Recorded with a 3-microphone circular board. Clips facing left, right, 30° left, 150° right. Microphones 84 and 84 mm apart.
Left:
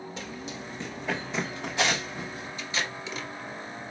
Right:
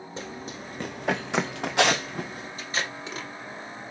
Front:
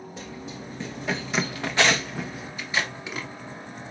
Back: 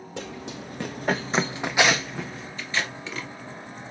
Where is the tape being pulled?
50° right, 1.9 m.